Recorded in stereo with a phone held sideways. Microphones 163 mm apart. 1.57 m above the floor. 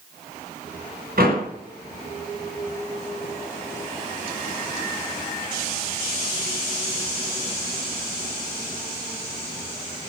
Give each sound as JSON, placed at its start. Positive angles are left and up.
{"t": 1.2, "sound": "a door slam", "side_deg": -70, "distance_m": 7.5}